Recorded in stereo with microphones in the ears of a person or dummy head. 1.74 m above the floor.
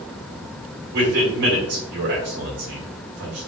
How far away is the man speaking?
About 1.5 m.